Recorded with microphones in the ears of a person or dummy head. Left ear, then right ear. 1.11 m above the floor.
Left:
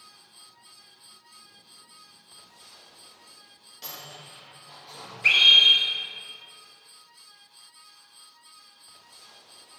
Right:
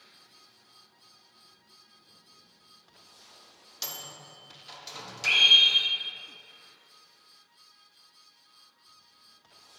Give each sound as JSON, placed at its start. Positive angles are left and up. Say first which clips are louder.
{"t": 3.8, "sound": "a microwave", "louder": "right 2 dB", "side_deg": -45, "distance_m": 0.8}
{"t": 5.2, "sound": "a scream", "louder": "left 3 dB", "side_deg": 65, "distance_m": 1.8}